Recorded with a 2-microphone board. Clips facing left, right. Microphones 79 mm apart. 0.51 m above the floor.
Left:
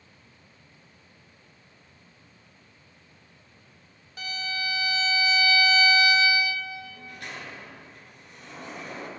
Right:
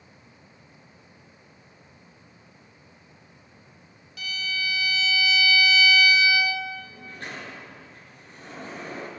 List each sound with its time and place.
4.2 s a violin: 35° left (ahead or behind), 0.6 m
6.8 s a sliding door: 35° right (ahead or behind), 2.5 m